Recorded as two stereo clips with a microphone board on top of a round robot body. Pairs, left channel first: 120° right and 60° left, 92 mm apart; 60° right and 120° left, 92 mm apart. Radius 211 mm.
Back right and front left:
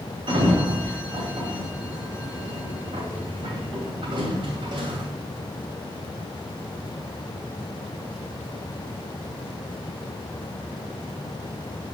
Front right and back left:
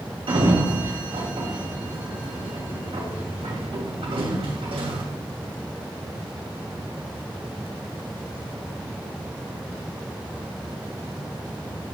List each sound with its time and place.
0.3 s a sliding door: 95° left, 2.5 m